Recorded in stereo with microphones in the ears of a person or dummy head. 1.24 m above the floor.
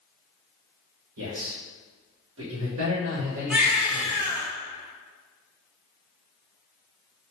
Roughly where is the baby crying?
Centre.